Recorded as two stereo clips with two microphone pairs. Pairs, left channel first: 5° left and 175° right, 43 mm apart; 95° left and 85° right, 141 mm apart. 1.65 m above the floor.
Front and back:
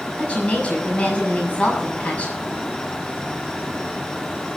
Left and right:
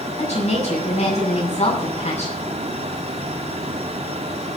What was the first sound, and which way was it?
A woman speaking, 60° left.